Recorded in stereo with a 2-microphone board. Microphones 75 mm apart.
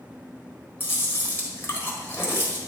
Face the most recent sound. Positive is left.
turn(degrees=30)  # may be behind; listen again after turning